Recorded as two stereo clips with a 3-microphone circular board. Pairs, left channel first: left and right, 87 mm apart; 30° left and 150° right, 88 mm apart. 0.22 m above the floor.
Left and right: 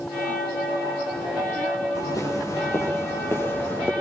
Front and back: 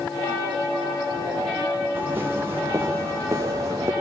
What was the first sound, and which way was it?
Footsteps, 140° left.